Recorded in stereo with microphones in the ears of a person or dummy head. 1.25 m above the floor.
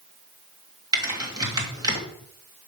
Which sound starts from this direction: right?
Typing on a keyboard, at 0.9 s.